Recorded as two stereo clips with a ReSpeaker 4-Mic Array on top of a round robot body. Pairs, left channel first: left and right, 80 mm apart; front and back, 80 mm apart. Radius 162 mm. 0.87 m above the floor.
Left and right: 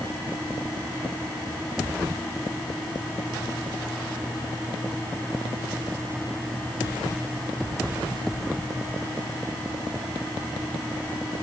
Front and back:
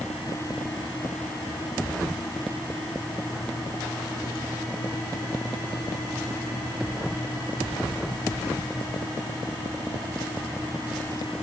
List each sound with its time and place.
Only background noise.